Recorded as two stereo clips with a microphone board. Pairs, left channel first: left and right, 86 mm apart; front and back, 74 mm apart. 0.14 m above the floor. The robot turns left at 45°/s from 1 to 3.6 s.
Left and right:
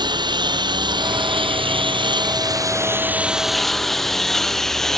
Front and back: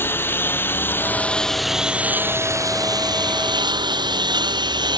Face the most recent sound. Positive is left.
turn(degrees=175)